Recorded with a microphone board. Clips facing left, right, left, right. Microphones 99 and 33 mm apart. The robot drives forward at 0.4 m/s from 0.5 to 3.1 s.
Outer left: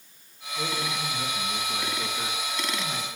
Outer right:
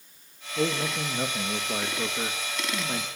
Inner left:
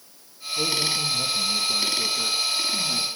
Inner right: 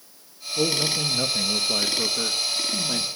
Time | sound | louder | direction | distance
0.6 | a man speaking | outer right 4 dB, inner right 1 dB | 80° right | 1.4 m